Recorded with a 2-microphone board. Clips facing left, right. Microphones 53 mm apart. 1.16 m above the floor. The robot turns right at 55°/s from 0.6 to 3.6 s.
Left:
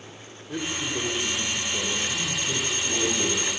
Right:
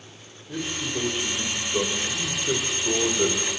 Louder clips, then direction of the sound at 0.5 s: Even; 165° left.